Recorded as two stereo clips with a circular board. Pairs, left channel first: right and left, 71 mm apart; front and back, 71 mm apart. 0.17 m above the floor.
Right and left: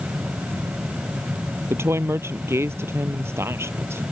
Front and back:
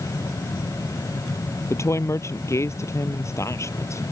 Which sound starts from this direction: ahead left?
A woman speaking, at 1.7 s.